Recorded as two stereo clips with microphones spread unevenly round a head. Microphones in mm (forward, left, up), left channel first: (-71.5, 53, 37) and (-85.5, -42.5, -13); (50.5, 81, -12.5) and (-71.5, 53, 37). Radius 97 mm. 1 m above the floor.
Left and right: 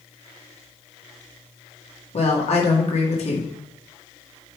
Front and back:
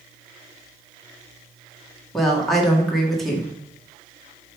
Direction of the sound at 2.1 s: 95° left.